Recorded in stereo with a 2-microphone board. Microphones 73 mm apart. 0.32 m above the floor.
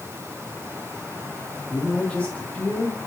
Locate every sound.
1.7 s a man speaking: 15° left (ahead or behind), 3 m; by 3.0 s 25° left (ahead or behind), 1.8 m